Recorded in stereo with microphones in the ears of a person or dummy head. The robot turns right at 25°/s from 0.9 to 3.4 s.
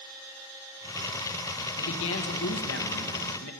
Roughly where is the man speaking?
Ahead left.